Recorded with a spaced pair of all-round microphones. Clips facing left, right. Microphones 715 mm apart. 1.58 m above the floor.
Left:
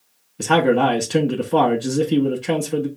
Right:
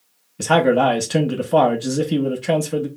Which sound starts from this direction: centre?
A man speaking, at 0.4 s.